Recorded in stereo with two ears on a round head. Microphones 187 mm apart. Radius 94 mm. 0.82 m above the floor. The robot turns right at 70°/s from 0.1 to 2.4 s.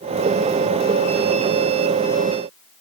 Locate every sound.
Only background noise.